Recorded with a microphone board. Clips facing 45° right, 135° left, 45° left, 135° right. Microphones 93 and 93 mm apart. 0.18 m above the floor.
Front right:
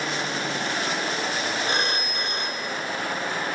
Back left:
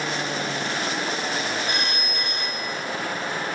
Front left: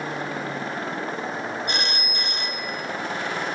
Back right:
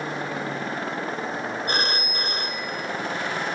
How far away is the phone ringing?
About 1.6 m.